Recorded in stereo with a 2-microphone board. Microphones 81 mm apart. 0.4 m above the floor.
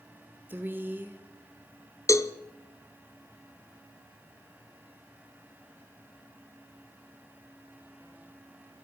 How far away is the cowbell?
About 0.5 m.